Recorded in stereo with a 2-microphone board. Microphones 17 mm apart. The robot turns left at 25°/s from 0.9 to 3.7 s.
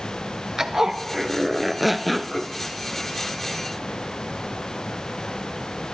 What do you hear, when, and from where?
0.6 s a zipper: 150° right, 1.0 m; by 2.5 s 170° left, 1.0 m